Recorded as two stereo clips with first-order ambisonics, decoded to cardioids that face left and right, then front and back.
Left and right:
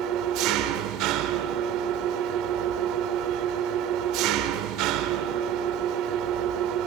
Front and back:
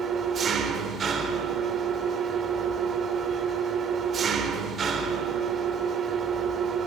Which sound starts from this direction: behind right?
An engine running, at 0.0 s.